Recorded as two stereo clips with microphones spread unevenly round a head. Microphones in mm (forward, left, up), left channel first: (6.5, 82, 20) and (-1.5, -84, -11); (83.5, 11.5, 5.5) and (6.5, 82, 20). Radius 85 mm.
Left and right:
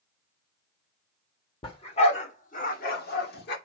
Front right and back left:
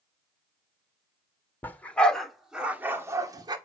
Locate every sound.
1.6 s a dog barking: 30° left, 2.5 m; by 3.6 s 100° left, 2 m